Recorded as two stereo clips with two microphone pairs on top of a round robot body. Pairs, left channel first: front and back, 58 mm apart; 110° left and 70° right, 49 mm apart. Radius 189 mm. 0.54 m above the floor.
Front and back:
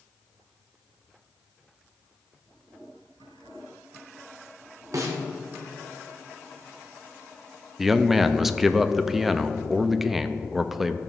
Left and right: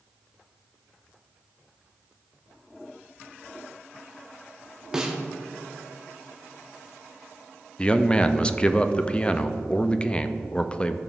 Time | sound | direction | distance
4.9 | a snare drum | 145° right | 1.0 m
7.8 | a man speaking | 100° left | 0.6 m